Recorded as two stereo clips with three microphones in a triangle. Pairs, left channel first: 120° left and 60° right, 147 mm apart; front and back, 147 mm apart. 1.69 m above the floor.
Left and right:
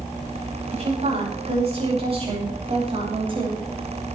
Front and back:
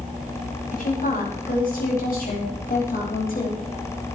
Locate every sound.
0.7 s a woman speaking: 20° right, 10 m; by 3.5 s 5° right, 8.5 m